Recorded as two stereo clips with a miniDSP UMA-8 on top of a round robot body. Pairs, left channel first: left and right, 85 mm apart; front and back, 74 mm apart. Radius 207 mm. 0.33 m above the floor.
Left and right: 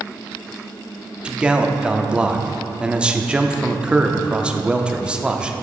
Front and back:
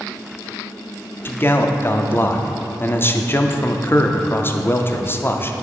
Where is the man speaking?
20° right, 0.9 m.